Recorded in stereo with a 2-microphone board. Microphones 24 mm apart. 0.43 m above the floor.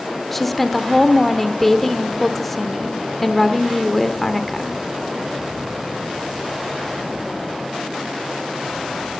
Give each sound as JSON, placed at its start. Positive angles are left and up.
{"t": 0.3, "sound": "a woman speaking", "side_deg": 0, "distance_m": 1.3}